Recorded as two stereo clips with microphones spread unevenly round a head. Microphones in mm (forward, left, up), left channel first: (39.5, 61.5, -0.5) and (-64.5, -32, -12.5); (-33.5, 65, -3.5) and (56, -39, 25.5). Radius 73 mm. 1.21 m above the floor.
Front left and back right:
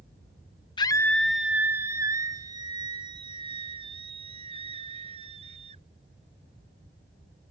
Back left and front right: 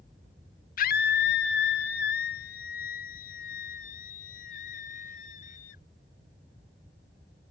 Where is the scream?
105° left; by 5.8 s 175° left.